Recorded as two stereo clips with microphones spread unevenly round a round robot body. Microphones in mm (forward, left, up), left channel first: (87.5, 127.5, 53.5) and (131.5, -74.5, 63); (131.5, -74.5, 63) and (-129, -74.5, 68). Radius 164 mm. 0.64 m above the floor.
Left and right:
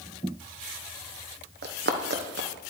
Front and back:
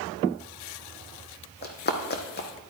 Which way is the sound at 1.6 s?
50° right.